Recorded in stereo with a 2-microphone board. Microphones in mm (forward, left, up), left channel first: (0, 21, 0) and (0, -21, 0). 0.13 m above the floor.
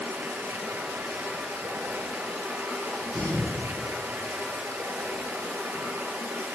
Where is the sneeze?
5° left (ahead or behind), 3 m.